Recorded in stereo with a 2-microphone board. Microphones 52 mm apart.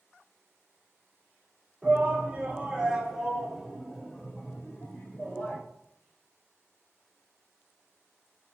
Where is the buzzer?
I don't hear a buzzer.